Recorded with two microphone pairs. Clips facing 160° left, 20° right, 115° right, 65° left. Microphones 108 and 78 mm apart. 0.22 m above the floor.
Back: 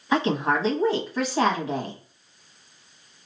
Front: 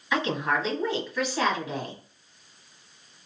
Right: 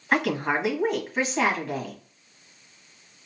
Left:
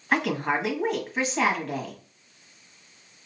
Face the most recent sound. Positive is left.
turn(degrees=155)